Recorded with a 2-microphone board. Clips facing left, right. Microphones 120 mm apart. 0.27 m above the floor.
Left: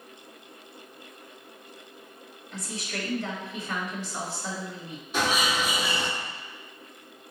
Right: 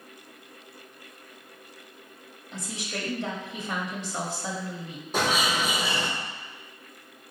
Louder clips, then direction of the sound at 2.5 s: Even; 20° right (ahead or behind).